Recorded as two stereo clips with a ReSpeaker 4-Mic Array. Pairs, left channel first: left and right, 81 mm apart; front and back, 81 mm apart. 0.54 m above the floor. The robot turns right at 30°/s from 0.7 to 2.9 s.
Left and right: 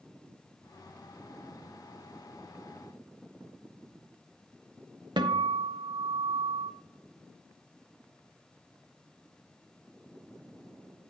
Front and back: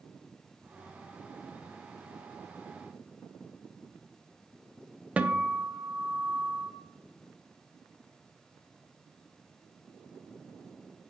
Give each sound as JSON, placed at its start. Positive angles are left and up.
{"t": 5.2, "sound": "a guitar", "azimuth_deg": -105, "distance_m": 0.6}